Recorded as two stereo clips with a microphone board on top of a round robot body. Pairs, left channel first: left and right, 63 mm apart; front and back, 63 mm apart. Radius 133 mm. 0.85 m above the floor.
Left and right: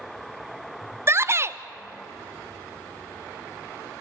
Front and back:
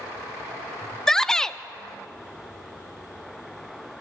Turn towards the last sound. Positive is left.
turn(degrees=-80)